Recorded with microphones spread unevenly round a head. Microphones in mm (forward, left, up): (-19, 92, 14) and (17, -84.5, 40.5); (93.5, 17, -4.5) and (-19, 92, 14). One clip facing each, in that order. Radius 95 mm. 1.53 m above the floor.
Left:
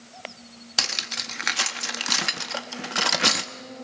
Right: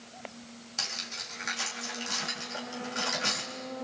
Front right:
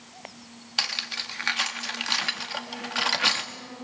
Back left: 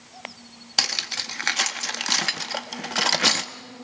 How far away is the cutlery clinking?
About 1.5 m.